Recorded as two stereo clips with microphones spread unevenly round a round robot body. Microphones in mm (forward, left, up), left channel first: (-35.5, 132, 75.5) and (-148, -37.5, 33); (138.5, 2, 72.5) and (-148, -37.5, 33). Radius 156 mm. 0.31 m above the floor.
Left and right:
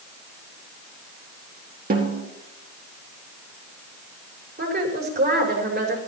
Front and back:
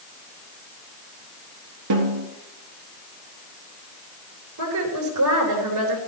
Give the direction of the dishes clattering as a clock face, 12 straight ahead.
I don't hear dishes clattering.